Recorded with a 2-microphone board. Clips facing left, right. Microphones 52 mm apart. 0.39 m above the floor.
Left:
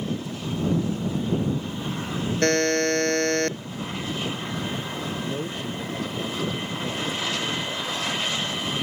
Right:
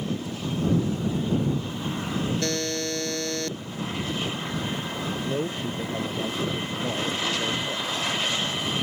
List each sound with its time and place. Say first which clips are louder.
2.4 s a buzzer: left 7 dB; 50° left (ahead or behind)
5.2 s a man speaking: right 2 dB; 20° right (ahead or behind)